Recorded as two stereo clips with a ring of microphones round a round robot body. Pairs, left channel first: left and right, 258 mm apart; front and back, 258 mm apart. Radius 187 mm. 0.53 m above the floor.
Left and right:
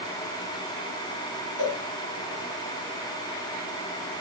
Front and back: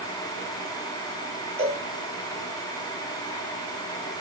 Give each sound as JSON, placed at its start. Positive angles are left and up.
{"t": 1.6, "sound": "a cowbell", "azimuth_deg": 115, "distance_m": 5.5}